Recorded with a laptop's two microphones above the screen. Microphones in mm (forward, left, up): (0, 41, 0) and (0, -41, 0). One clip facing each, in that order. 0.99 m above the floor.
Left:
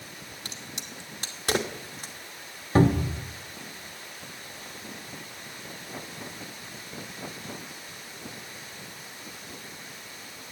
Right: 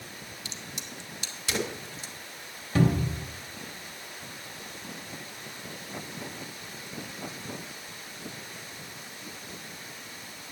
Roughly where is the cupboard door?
Left.